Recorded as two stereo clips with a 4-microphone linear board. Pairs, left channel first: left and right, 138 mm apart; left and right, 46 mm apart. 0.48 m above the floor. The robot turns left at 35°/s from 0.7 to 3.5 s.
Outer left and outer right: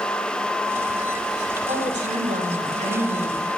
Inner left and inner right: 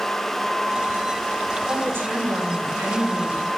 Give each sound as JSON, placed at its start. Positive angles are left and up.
{"t": 1.7, "sound": "a woman speaking", "azimuth_deg": -55, "distance_m": 3.5}